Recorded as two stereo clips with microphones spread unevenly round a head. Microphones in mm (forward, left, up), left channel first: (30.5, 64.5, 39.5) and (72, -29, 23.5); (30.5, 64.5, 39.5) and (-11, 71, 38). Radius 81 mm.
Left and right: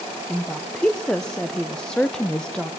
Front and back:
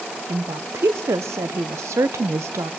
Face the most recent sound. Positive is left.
turn(degrees=-165)